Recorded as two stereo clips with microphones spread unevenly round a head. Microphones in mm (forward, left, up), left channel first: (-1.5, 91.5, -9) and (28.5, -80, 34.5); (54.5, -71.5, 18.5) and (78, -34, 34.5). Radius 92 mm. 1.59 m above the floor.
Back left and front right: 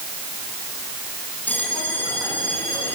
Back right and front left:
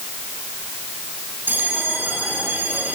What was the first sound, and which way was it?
A bell, 15° left.